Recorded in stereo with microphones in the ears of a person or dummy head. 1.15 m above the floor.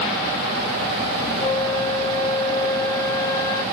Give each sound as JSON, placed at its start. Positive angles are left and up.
{"t": 1.4, "sound": "a flute", "side_deg": 25}